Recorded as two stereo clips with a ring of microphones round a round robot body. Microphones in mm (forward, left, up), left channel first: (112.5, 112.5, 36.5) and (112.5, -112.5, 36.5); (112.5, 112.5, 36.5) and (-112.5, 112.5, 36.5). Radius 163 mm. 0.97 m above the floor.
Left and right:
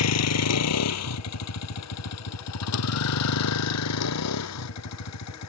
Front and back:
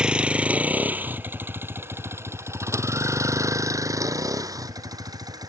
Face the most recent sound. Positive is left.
turn(degrees=105)